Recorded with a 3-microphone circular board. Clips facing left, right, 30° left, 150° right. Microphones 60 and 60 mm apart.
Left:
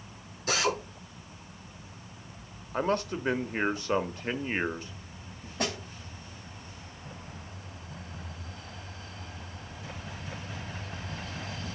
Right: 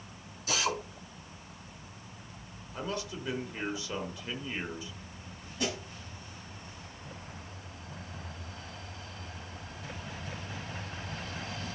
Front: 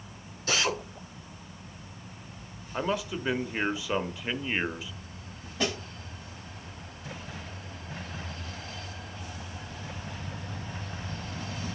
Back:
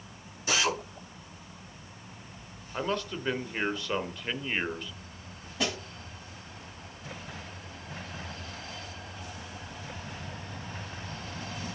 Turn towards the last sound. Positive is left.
turn(degrees=125)